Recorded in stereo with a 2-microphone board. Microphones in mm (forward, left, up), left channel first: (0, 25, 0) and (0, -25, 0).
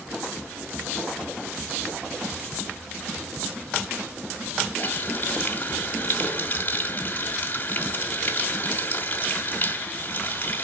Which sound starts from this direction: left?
A running tap, at 4.8 s.